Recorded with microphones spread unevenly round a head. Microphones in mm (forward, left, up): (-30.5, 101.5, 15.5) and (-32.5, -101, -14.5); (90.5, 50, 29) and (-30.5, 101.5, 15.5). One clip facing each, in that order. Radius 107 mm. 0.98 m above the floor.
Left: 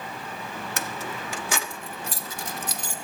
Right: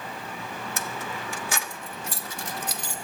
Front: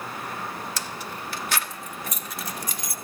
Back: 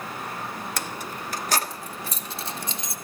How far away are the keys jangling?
About 1.2 m.